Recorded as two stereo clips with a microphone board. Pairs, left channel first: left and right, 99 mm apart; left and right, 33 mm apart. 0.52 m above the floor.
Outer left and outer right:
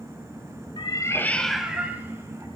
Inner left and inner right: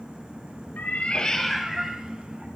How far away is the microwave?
No microwave in this recording.